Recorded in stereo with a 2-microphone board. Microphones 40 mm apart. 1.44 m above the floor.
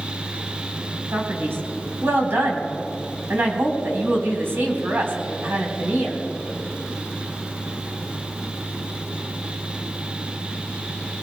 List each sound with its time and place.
1.1 s a man speaking: 70° right (ahead or behind), 4 m